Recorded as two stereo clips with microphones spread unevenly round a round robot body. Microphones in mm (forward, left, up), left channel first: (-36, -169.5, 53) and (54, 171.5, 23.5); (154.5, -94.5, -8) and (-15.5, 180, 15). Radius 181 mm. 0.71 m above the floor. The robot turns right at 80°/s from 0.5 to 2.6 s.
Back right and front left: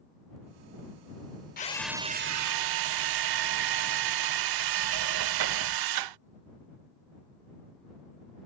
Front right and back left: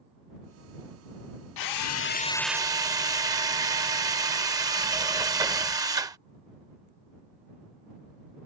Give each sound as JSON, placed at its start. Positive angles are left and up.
{"t": 1.6, "sound": "a drill", "azimuth_deg": -40}